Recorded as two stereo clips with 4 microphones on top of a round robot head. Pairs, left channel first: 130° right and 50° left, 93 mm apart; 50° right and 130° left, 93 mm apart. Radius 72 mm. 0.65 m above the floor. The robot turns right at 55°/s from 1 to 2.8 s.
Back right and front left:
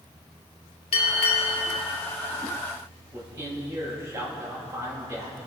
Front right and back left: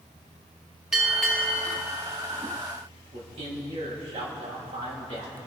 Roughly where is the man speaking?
Left.